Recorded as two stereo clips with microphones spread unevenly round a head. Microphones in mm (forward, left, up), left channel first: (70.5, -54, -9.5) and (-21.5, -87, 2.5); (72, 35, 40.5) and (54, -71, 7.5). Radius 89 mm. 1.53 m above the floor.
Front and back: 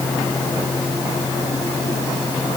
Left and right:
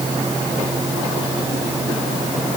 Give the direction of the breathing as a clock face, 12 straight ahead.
I don't hear breathing.